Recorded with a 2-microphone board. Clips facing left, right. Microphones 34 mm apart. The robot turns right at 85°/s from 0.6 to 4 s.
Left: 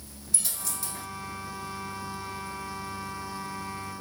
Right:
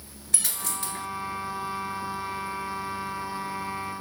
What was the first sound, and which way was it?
A dropped coin, 75° right.